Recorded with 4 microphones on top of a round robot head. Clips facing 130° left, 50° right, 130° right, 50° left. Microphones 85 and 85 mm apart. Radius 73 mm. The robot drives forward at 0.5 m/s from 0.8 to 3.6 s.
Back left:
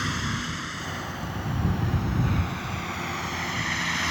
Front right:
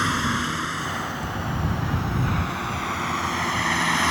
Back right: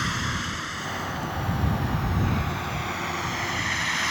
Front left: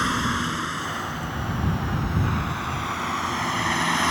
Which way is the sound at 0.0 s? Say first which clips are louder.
Front right 6 dB, front left 5 dB; straight ahead.